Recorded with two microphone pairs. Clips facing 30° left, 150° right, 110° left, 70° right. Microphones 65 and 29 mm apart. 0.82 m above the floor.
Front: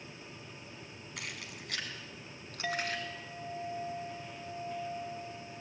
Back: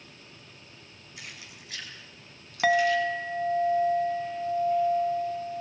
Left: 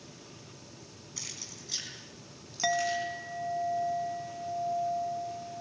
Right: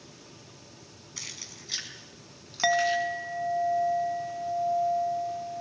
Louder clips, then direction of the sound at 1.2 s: Front 2 dB, right 2 dB; 5° right.